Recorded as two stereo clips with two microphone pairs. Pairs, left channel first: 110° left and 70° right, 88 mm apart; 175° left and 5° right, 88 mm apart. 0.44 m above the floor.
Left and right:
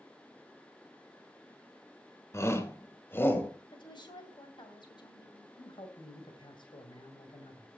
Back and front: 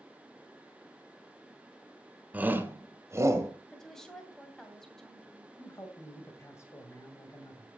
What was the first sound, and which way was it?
A shout, 60° left.